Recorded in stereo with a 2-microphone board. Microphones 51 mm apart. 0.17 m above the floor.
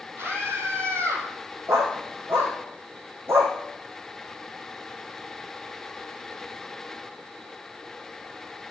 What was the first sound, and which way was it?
A scream, 50° right (ahead or behind).